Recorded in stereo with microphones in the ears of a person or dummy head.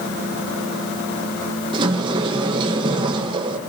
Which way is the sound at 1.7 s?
30° right (ahead or behind).